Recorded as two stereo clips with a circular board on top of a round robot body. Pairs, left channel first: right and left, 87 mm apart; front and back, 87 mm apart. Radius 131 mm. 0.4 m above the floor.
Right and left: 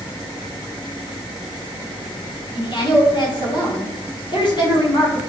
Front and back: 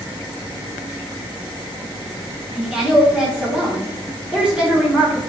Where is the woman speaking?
105° right, 1.8 m.